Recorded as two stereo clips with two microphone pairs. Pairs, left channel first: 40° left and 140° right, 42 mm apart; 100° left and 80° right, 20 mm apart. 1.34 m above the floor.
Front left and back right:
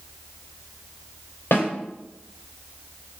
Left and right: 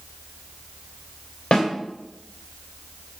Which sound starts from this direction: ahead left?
A snare drum, at 1.5 s.